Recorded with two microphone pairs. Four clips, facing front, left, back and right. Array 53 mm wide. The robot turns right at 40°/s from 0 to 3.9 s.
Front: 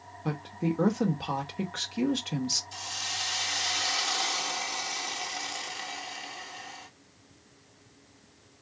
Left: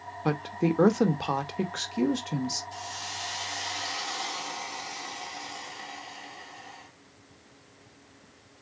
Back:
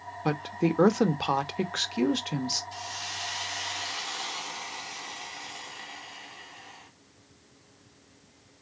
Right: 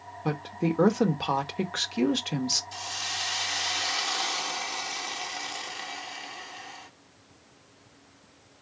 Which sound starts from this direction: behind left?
A woman speaking, at 0.2 s.